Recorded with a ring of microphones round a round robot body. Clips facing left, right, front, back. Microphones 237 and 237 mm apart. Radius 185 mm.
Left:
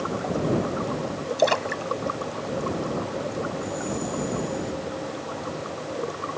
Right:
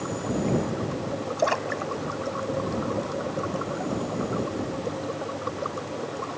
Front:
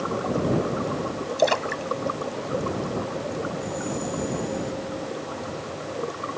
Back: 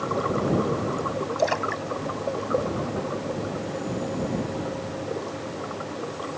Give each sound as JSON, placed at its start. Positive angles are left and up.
{"t": 1.4, "sound": "a splash", "azimuth_deg": 45}